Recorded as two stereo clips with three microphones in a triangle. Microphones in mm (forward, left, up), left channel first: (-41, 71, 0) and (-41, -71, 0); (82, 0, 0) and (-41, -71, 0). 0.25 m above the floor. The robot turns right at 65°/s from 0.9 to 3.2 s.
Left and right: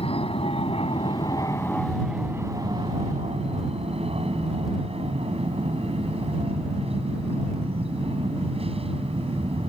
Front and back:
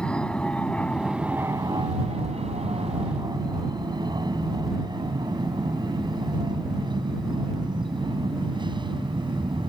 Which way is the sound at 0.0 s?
110° left.